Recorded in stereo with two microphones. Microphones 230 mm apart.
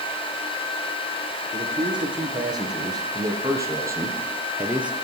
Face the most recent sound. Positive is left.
turn(degrees=-5)  # may be behind; listen again after turning